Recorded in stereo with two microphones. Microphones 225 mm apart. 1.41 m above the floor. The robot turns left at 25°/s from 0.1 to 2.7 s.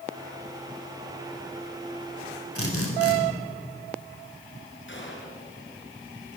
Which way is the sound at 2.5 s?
85° left.